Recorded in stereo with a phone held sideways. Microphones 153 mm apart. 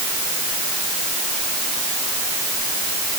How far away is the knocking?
No knocking in this recording.